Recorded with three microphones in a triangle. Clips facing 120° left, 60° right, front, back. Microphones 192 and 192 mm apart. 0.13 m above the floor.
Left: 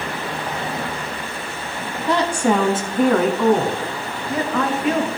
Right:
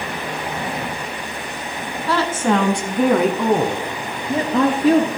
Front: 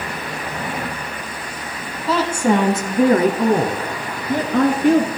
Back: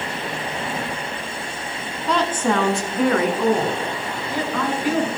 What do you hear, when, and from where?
2.1 s a woman speaking: 80° left, 1.4 m; by 5.1 s 10° right, 2.5 m